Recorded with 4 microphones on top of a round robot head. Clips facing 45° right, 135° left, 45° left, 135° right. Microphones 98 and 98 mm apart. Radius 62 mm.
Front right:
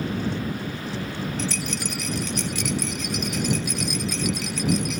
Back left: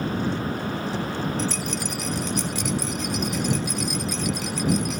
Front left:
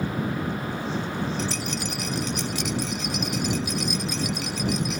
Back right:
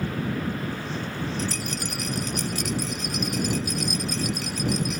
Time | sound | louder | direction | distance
1.4 | a rattle | back left 2 dB, front left 1 dB | 85° right | ?